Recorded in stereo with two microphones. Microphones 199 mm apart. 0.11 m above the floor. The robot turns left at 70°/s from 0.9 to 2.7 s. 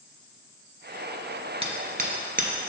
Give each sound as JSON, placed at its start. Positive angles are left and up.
{"t": 1.6, "sound": "hammering", "side_deg": -30, "distance_m": 0.9}